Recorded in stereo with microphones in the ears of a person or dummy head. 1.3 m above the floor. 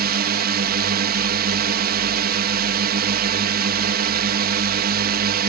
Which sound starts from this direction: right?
A drone, at 0.0 s.